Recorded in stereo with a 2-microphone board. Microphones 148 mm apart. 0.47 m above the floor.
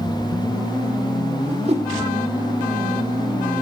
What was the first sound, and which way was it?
A whoosh, 45° right (ahead or behind).